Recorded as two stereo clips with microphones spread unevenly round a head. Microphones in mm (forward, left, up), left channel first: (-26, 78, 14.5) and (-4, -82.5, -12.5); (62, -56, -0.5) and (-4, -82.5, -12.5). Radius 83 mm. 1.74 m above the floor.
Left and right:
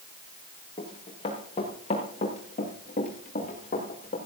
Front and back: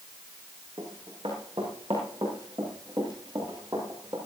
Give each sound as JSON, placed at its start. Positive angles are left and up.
{"t": 0.8, "sound": "running footsteps", "azimuth_deg": 155, "distance_m": 8.5}